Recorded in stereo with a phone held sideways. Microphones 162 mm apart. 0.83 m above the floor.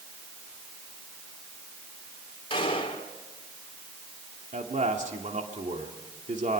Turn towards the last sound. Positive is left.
turn(degrees=-55)  # may be behind; listen again after turning